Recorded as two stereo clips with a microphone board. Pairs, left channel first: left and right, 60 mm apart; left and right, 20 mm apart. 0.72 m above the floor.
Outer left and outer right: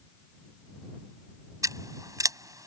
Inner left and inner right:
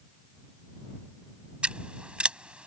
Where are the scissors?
70° right (ahead or behind).